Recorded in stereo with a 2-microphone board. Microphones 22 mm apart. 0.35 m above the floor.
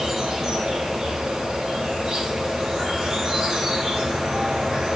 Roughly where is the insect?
Right.